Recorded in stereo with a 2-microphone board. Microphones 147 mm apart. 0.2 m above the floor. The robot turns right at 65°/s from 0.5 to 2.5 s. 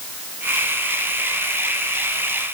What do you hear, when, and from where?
Only background noise.